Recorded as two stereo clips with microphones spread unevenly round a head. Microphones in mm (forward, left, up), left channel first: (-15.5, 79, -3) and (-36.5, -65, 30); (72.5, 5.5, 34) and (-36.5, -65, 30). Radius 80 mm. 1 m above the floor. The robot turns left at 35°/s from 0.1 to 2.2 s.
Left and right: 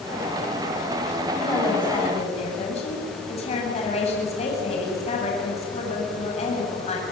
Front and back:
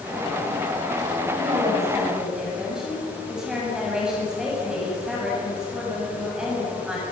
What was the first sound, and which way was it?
A woman speaking, 160° left.